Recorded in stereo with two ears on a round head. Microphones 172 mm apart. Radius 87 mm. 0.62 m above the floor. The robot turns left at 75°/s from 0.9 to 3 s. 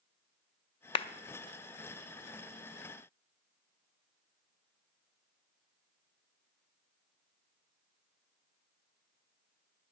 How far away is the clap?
About 0.5 m.